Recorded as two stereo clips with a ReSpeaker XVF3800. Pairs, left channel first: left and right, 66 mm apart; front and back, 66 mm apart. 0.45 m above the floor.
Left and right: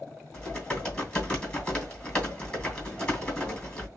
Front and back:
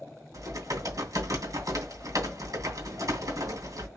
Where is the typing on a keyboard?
165° left, 2.5 m.